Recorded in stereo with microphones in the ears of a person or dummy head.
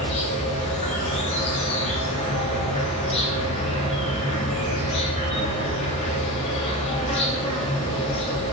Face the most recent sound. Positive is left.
turn(degrees=30)  # may be behind; listen again after turning